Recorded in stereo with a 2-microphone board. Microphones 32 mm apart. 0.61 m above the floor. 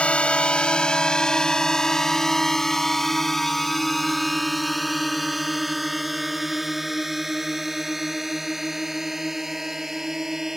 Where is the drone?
40° left (ahead or behind); by 10.6 s 15° right (ahead or behind).